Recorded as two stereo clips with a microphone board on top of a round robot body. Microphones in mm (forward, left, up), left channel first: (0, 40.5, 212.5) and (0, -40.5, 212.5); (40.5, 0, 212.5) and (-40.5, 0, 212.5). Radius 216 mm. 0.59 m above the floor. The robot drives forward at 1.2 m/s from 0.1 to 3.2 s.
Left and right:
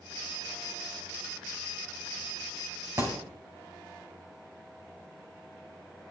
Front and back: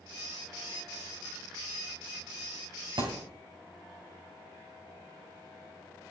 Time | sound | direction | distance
3.0 | a thud | 145° right | 3 m